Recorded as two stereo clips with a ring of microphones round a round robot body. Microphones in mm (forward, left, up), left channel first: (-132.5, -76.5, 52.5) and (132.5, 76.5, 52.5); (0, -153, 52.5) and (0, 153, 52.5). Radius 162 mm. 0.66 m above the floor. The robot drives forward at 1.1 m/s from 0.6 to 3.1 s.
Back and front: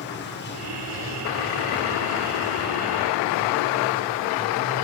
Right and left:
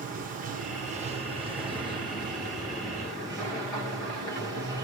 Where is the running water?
155° left, 1.9 m; by 4.8 s 170° left, 4.5 m.